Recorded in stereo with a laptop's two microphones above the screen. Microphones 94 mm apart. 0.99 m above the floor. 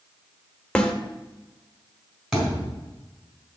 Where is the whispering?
No whispering in this recording.